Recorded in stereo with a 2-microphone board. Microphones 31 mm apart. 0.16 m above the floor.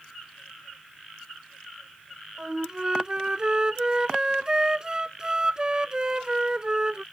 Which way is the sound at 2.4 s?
30° right (ahead or behind).